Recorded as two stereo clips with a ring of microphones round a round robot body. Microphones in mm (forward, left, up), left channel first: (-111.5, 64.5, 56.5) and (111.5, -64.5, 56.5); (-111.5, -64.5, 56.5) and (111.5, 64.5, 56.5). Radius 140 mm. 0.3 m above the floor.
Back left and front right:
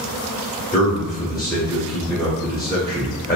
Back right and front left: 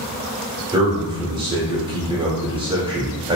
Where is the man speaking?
85° left, 1.0 m.